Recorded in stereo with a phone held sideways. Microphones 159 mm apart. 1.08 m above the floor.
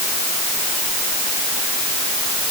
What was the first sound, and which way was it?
Only background noise.